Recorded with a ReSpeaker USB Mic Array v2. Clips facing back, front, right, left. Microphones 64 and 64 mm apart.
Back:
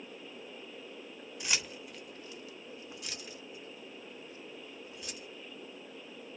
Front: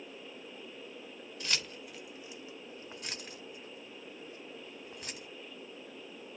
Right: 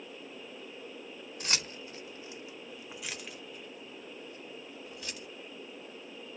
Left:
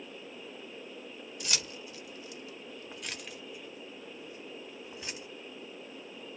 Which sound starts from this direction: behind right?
Keys jangling, at 1.4 s.